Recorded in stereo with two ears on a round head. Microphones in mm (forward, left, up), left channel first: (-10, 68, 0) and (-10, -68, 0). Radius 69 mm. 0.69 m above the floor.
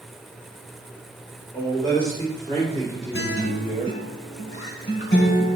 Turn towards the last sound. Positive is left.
turn(degrees=65)  # may be behind; listen again after turning